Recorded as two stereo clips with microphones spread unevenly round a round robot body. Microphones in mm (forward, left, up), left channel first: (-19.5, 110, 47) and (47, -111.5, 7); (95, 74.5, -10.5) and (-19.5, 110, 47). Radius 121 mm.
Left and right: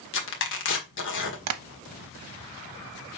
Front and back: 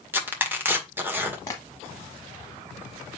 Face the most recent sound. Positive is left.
turn(degrees=-100)